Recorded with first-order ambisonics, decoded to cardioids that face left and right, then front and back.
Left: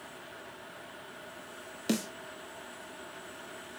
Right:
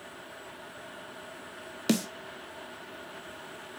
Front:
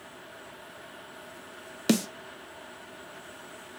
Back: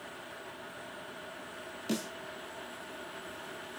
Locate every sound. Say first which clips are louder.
1.9 s a snare drum: right 4 dB, front 10 dB; 25° right, 1.3 m